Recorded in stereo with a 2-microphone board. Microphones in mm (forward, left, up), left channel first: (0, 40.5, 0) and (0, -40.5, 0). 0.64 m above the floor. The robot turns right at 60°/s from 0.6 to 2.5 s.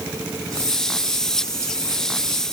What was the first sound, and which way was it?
Only background noise.